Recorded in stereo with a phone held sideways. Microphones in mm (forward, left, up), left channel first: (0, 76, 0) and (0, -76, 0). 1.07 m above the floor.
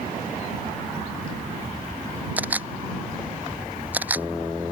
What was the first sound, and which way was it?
A camera shutter, 10° right (ahead or behind).